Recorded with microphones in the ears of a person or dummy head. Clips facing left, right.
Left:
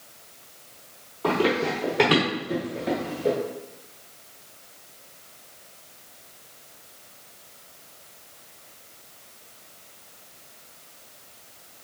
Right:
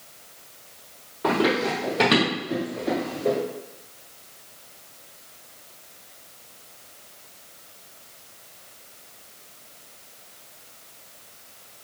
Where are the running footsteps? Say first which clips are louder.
Right 1 dB; 15° right (ahead or behind), 1.2 m; by 3.4 s 35° left (ahead or behind), 1.6 m.